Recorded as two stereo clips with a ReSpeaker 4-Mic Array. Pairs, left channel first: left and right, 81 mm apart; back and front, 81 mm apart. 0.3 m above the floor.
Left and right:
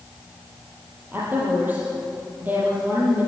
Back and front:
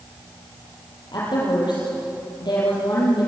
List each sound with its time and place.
1.1 s a woman speaking: 155° right, 7 m